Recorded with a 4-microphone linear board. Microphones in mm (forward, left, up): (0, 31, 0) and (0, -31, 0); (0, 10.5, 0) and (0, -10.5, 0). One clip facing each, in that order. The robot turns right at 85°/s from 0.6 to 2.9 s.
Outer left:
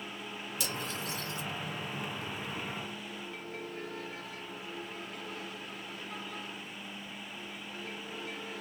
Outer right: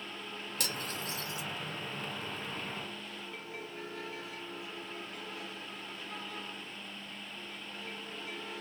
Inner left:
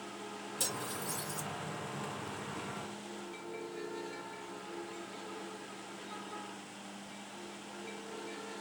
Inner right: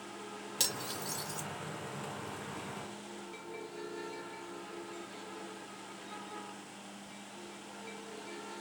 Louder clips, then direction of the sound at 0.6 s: Outer left 1 dB, inner right 3 dB; 55° right (ahead or behind).